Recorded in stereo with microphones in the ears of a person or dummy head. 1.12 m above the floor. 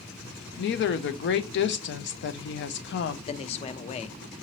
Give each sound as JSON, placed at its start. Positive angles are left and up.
{"t": 0.6, "sound": "a woman speaking", "side_deg": 50, "distance_m": 0.5}
{"t": 3.3, "sound": "a man speaking", "side_deg": 35, "distance_m": 0.5}